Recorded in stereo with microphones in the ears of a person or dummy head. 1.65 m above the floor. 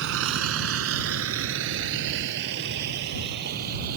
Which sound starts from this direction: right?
A vehicle, at 0.0 s.